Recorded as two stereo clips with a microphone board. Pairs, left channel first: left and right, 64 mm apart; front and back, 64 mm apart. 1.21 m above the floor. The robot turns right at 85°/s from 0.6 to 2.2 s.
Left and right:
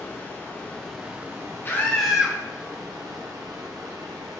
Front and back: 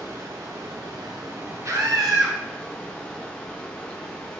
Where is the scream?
145° left, 1.1 m; by 2.4 s 165° right, 1.1 m.